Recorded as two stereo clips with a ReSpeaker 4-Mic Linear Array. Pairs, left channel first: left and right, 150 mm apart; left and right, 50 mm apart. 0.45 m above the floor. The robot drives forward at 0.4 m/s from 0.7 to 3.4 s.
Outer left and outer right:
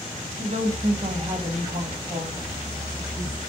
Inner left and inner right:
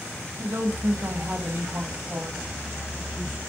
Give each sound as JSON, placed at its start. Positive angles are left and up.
{"t": 0.4, "sound": "a woman speaking", "side_deg": -50, "distance_m": 2.0}